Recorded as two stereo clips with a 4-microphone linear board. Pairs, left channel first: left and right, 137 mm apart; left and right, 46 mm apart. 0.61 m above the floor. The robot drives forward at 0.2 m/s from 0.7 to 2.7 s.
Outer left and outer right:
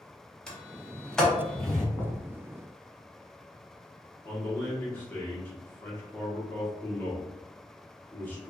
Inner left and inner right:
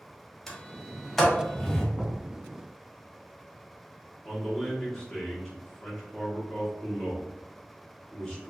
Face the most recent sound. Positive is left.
turn(degrees=15)  # may be behind; listen again after turning